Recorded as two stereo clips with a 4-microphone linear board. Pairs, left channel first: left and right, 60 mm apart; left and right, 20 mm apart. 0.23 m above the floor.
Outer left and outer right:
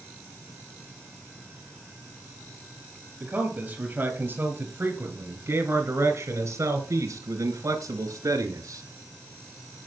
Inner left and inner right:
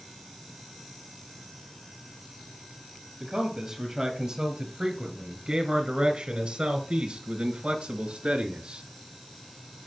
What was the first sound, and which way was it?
A man speaking, 25° right (ahead or behind).